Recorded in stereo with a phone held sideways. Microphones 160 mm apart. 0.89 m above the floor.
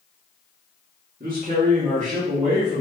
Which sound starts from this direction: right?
A man speaking, at 1.2 s.